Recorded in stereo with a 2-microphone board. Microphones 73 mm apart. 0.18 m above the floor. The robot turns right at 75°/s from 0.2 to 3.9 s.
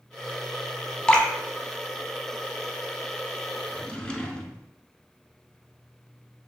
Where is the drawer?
30° left (ahead or behind), 0.7 m; by 4.7 s 15° left (ahead or behind), 0.7 m.